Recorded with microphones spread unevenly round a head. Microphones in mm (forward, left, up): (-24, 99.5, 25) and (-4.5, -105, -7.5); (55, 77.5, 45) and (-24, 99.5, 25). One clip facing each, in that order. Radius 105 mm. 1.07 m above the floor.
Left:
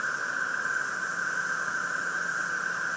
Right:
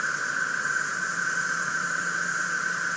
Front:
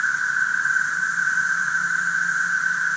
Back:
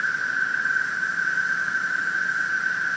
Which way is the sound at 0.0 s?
85° right.